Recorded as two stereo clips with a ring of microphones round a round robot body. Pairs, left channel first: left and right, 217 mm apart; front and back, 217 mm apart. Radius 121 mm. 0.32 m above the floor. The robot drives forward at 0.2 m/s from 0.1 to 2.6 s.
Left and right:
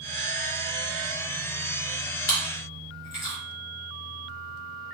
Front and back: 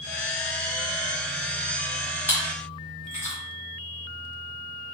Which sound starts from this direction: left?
Chewing, at 2.3 s.